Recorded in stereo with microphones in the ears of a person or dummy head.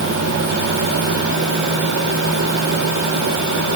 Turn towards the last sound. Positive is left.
No sound to turn to.